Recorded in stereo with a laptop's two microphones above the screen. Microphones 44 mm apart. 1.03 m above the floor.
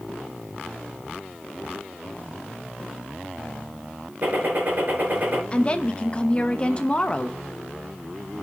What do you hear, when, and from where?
4.2 s a gunshot: 40° right (ahead or behind), 5.5 m
5.5 s a woman speaking: 25° left (ahead or behind), 0.9 m